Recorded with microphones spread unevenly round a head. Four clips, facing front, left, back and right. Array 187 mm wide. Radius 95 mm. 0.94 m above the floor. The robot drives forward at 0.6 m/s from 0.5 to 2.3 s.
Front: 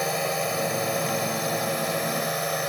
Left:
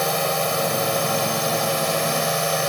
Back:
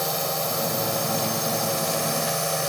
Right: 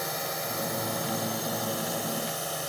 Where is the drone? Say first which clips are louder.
Left 11 dB, front 1 dB; 80° left; by 2.7 s 90° left.